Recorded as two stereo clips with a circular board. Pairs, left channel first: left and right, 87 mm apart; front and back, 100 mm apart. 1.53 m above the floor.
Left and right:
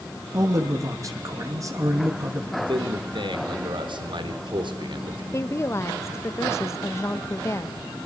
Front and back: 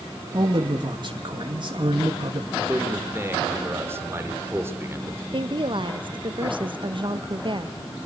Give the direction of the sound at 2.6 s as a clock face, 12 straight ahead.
4 o'clock.